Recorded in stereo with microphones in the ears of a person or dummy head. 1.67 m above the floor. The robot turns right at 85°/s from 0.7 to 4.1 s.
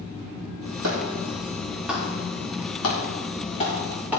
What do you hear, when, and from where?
0.8 s a clap: 85° right, 3 m; by 4.2 s 5° right (ahead or behind), 3 m